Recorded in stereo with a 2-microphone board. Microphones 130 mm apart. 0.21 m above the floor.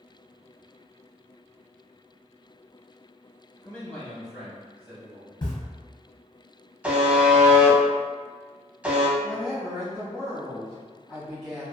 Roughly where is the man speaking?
Centre.